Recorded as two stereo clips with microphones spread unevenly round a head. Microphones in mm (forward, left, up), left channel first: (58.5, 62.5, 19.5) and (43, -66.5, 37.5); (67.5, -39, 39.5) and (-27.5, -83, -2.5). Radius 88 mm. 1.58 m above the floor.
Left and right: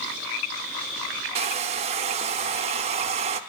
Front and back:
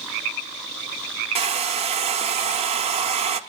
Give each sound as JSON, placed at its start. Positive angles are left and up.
{"t": 1.4, "sound": "a hair dryer", "azimuth_deg": -150, "distance_m": 0.6}